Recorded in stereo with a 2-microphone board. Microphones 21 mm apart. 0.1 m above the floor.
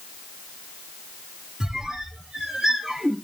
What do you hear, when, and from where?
1.6 s a squeak: 40° right (ahead or behind), 1.1 m